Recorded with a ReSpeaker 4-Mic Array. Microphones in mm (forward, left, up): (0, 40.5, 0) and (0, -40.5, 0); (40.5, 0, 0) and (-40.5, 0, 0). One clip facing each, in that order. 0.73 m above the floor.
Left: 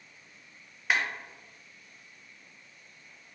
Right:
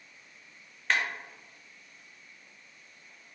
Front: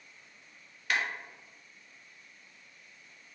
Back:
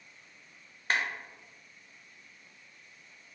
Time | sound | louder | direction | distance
0.9 | a clap | even, back 1 dB | 165° left | 0.7 m